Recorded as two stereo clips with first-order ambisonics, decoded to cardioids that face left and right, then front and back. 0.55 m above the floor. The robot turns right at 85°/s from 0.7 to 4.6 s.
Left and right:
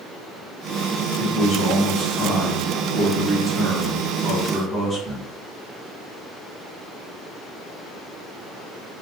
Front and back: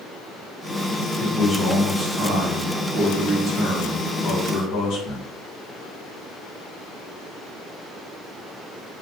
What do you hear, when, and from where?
1.2 s a man speaking: 60° left, 1.2 m; by 5.3 s 10° right, 1.2 m